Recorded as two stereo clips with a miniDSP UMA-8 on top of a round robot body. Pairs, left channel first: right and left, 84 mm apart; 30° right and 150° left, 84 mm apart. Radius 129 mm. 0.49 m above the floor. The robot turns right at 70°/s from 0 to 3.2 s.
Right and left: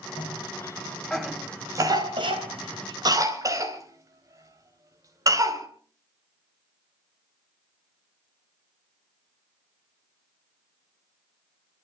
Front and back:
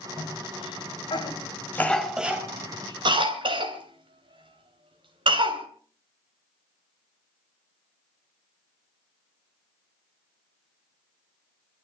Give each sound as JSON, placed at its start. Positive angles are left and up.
{"t": 0.2, "sound": "a cough", "azimuth_deg": -75, "distance_m": 3.5}